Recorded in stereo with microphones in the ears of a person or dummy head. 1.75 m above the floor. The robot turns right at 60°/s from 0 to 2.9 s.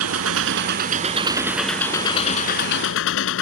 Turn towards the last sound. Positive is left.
turn(degrees=80)